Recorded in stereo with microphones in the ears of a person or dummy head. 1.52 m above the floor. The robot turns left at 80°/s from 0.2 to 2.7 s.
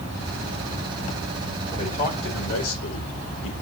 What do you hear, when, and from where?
1.7 s a man speaking: 165° left, 5 m; by 3.5 s 85° left, 5 m